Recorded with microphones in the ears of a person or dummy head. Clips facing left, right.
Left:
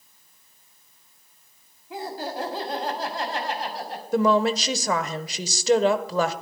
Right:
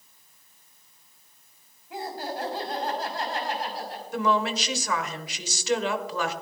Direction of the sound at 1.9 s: 85° left.